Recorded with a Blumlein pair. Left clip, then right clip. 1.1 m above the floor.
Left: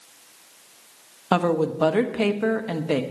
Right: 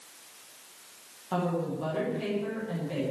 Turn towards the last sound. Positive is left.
turn(degrees=40)